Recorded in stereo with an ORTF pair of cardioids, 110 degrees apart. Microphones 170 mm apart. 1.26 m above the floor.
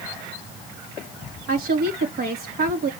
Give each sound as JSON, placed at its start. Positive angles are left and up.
{"t": 1.5, "sound": "a woman speaking", "azimuth_deg": -65, "distance_m": 3.0}